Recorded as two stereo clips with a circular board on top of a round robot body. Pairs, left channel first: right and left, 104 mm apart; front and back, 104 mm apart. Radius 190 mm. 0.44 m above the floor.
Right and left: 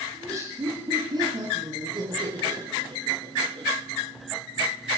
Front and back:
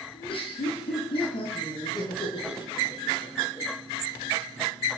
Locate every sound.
0.1 s laughter: 30° left, 7.5 m; by 3.7 s 65° left, 6.5 m